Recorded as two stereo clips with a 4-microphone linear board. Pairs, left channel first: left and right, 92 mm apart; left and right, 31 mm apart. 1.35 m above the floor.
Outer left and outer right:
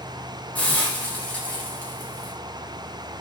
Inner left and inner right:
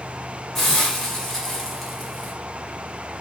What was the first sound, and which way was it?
A hiss, 15° left (ahead or behind).